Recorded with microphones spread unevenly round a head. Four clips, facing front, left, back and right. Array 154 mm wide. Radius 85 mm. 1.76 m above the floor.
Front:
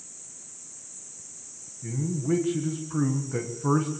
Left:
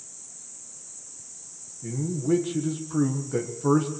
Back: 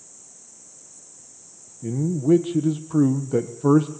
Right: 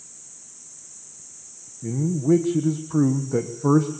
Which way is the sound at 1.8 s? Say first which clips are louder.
Right 6 dB, back 8 dB; 170° right.